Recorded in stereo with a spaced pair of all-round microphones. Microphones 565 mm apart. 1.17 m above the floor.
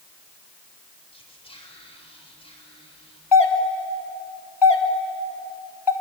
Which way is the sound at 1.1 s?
10° left (ahead or behind).